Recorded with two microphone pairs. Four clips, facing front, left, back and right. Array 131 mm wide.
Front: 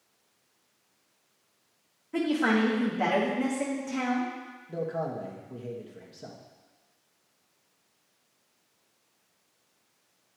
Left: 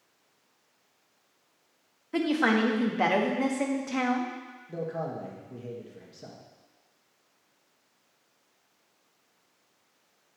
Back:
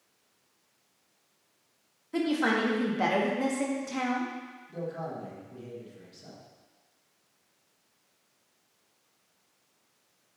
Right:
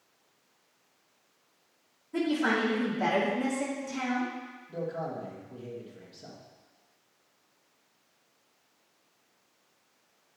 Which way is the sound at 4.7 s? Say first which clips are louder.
Left 1 dB, front 4 dB; 40° left.